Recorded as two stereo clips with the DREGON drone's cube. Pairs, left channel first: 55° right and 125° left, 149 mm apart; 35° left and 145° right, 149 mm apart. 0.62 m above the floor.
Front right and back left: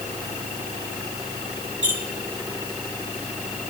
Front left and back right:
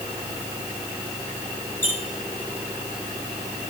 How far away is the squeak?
About 6.5 m.